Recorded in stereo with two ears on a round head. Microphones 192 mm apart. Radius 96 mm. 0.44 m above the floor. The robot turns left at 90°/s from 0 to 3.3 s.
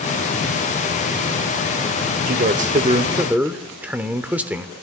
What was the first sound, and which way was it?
A man speaking, 75° right.